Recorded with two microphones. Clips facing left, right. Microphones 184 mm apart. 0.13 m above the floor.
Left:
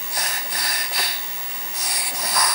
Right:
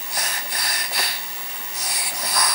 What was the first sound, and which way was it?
Only background noise.